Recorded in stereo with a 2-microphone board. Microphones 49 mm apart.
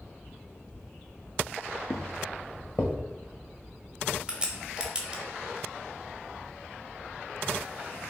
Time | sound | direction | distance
1.9 | footsteps | 65° left (ahead or behind) | 0.8 m
4.3 | a crack | 20° right (ahead or behind) | 0.8 m